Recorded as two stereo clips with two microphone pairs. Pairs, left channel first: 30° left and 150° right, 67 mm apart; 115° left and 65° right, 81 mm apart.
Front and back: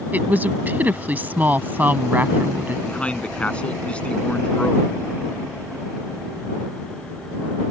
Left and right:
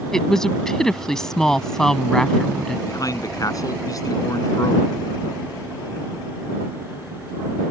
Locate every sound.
0.1 s a woman speaking: 170° right
2.9 s a man speaking: 95° left